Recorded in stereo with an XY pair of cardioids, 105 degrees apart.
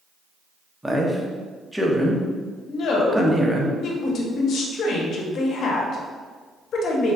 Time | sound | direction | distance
0.8 | a man speaking | 10° right | 0.7 m
2.7 | a woman speaking | 65° left | 0.9 m